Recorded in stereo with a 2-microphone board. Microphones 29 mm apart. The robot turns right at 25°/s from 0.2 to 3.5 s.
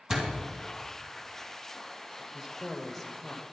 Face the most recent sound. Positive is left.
turn(degrees=20)